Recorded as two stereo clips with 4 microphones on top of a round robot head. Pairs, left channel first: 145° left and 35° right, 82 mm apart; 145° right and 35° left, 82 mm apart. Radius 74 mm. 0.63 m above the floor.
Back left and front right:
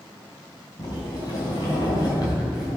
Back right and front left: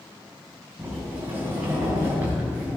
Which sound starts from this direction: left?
A sliding door, at 0.8 s.